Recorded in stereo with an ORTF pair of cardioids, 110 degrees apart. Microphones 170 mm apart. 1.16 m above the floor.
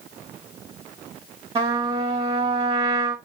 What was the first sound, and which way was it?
A trumpet, 30° right.